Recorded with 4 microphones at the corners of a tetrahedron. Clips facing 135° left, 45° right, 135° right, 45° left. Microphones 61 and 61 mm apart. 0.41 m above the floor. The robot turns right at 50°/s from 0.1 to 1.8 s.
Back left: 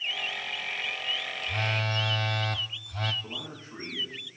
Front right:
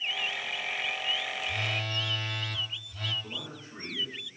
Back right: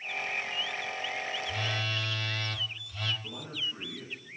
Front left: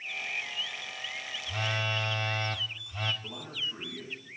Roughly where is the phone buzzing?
Left.